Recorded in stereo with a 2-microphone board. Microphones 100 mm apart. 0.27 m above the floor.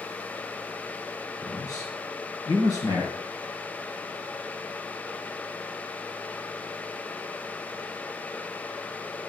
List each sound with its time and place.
1.4 s a man speaking: 40° left (ahead or behind), 2.5 m